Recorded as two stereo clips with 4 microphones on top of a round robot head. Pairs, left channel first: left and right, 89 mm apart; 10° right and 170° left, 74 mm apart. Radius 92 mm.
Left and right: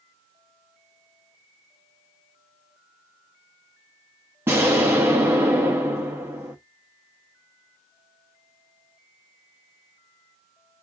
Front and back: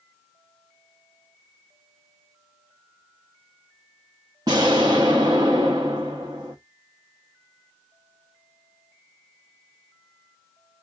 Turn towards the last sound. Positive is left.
turn(degrees=-135)